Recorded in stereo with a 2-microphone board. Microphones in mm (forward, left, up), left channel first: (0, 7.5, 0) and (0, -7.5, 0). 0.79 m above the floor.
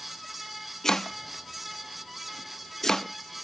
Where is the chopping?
30° left (ahead or behind), 0.7 m.